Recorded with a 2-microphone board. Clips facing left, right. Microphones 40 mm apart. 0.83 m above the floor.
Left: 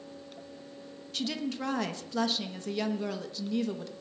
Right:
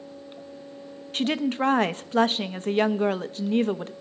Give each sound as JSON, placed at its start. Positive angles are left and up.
{"t": 1.1, "sound": "a woman speaking", "side_deg": -45, "distance_m": 0.7}